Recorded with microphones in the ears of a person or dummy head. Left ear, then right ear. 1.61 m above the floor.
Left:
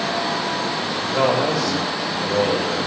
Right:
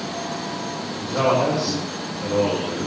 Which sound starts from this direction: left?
A man speaking, at 1.0 s.